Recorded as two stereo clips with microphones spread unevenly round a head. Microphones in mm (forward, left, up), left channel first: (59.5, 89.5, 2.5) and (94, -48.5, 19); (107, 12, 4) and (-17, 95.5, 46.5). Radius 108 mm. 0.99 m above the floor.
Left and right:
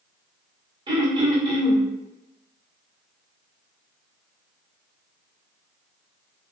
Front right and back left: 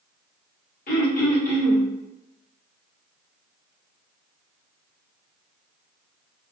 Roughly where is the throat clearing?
Ahead.